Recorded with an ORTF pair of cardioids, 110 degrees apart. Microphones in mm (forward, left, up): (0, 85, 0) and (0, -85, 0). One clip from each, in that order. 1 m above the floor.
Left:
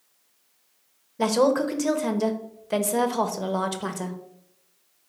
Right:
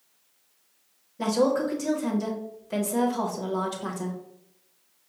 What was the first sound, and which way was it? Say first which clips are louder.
A woman speaking: left 3 dB; 30° left.